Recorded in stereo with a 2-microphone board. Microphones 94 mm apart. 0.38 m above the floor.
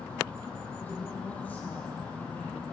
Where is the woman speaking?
15° left (ahead or behind), 9 m.